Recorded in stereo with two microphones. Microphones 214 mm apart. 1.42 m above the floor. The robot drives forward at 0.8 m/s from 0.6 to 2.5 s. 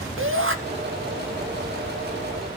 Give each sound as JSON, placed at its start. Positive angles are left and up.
{"t": 0.2, "sound": "a shout", "side_deg": -70, "distance_m": 1.9}